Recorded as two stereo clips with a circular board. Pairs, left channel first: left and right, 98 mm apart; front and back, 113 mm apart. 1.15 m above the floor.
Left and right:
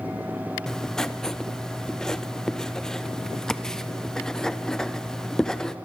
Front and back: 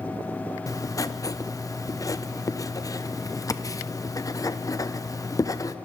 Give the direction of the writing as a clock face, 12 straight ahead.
12 o'clock.